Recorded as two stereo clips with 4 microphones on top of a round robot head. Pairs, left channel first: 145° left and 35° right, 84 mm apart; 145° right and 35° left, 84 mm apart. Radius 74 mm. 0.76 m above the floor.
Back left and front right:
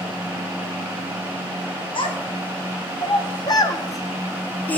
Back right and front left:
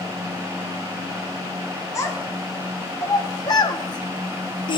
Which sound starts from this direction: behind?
A child speaking, at 1.9 s.